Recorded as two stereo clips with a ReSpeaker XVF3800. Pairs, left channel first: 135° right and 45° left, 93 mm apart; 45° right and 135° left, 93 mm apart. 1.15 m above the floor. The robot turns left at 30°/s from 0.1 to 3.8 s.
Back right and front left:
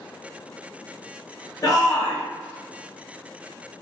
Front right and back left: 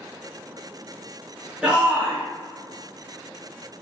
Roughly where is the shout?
Behind right.